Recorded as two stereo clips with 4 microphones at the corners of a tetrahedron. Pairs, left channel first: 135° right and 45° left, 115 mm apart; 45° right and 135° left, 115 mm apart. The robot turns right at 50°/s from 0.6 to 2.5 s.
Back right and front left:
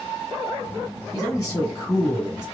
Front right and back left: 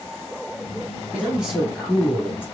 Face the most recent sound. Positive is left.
turn(degrees=-90)